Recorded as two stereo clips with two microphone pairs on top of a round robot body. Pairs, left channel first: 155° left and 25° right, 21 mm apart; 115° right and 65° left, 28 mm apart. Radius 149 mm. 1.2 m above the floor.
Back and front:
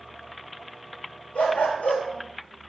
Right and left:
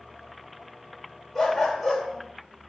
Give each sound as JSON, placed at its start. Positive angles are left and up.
{"t": 1.4, "sound": "a dog barking", "azimuth_deg": 150, "distance_m": 2.5}